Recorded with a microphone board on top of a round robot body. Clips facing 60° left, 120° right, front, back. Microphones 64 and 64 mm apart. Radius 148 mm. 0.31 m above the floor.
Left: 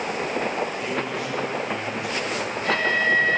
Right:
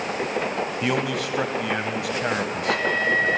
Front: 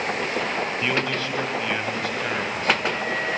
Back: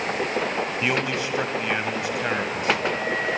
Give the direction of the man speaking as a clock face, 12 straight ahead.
4 o'clock.